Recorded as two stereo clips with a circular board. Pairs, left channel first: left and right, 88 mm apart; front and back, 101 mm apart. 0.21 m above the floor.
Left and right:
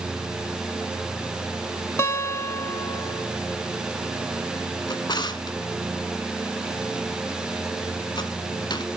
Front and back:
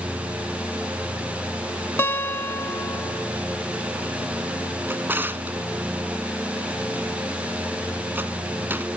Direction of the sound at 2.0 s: 55° left.